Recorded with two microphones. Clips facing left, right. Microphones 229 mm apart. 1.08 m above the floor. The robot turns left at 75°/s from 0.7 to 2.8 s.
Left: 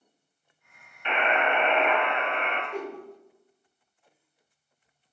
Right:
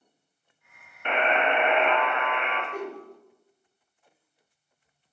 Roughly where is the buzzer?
Behind right.